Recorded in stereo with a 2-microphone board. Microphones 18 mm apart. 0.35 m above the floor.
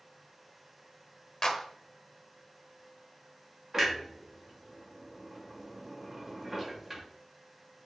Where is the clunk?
25° right (ahead or behind), 1.4 m.